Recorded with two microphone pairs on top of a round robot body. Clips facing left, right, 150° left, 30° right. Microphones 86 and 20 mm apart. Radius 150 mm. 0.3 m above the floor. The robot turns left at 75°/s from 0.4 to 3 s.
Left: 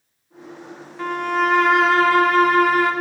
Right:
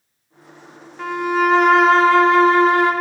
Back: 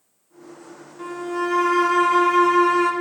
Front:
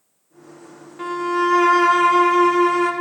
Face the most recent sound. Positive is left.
turn(degrees=-145)